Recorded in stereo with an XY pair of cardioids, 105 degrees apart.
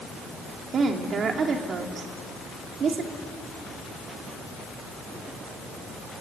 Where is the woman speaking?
50° right, 3 m.